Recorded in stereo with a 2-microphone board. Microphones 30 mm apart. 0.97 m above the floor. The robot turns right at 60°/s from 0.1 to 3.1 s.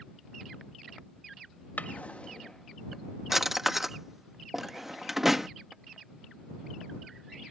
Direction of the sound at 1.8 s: 70° left (ahead or behind).